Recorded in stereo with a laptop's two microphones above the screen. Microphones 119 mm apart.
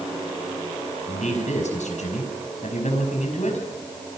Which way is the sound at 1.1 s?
75° left (ahead or behind).